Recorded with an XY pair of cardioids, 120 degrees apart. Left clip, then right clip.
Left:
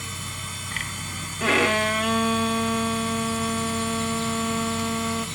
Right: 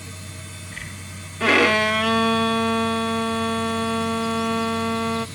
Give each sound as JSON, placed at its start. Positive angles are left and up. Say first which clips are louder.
{"t": 0.0, "sound": "a machine running", "louder": "left 6 dB", "azimuth_deg": 65, "distance_m": 3.0}
{"t": 1.4, "sound": "a violin", "louder": "right 4 dB", "azimuth_deg": -25, "distance_m": 0.9}